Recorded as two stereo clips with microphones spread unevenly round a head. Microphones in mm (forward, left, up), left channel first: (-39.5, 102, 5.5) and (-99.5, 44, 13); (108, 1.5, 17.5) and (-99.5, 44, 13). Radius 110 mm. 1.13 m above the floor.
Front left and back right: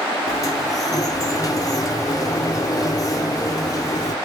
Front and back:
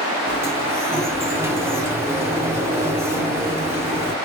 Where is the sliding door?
90° left, 0.9 m.